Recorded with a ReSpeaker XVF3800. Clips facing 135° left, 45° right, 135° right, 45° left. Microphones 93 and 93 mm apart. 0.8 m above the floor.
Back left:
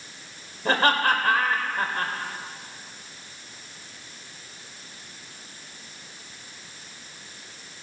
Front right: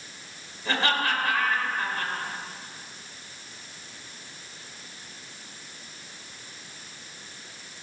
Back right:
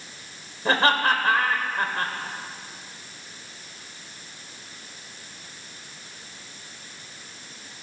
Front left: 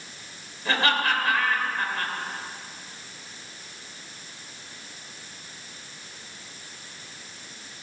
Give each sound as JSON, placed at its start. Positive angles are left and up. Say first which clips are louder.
{"t": 0.7, "sound": "laughter", "louder": "back left 5 dB, back right 3 dB", "azimuth_deg": 175, "distance_m": 3.0}